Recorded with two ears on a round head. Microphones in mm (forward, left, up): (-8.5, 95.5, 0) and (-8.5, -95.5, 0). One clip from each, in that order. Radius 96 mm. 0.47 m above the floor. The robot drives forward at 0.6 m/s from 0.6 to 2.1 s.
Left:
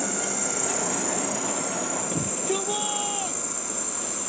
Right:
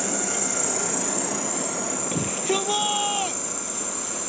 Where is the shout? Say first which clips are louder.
Right 3 dB; 30° right (ahead or behind).